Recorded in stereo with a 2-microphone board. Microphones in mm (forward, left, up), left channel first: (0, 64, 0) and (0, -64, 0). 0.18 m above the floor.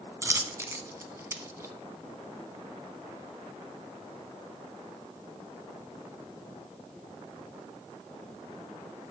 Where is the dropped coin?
20° right (ahead or behind), 0.7 m.